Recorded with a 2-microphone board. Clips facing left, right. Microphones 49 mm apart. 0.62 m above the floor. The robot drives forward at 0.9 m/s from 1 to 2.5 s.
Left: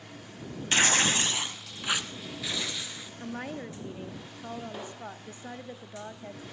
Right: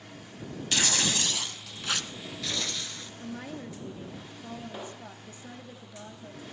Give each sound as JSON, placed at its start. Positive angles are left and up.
{"t": 0.7, "sound": "tearing paper", "side_deg": 35, "distance_m": 0.5}
{"t": 3.2, "sound": "a woman speaking", "side_deg": 35, "distance_m": 0.9}